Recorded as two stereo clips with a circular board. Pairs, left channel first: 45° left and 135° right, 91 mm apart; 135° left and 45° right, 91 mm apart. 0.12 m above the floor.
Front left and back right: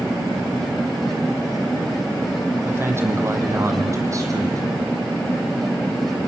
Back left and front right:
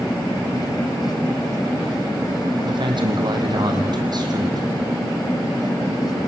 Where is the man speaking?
70° right, 5 m; by 4.6 s 85° right, 5.5 m.